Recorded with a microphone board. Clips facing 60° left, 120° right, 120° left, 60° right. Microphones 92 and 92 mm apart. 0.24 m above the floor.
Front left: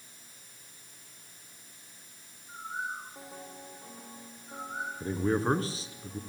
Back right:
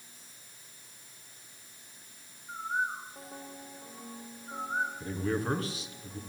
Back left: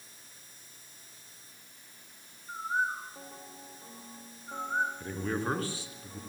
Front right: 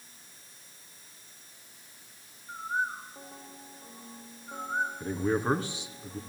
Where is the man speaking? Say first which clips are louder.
Front left 4 dB, front right 5 dB; 5° left, 2.5 m.